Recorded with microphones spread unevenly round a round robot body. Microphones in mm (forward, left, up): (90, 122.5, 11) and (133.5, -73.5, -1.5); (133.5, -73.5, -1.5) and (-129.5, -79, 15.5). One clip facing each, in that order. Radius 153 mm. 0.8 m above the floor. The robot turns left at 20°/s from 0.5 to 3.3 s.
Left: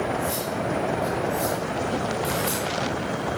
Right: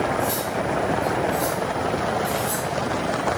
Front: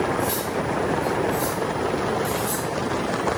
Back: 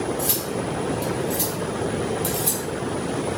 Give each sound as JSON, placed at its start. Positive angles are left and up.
{"t": 0.2, "sound": "cutlery clinking", "azimuth_deg": -150, "distance_m": 1.5}